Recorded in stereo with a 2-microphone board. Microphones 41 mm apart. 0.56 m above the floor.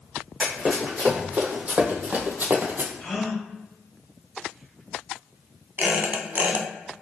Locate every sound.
0.4 s running footsteps: 25° right (ahead or behind), 1.6 m; by 2.9 s 55° right (ahead or behind), 0.8 m
3.0 s a gasp: 15° left (ahead or behind), 1.1 m
5.8 s a squeak: 45° right (ahead or behind), 0.7 m